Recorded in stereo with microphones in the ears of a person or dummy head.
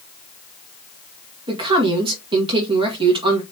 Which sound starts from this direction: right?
A man speaking, at 1.5 s.